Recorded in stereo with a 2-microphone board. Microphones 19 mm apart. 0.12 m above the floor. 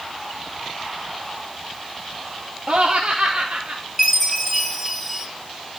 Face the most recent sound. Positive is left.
turn(degrees=0)  # may be behind; listen again after turning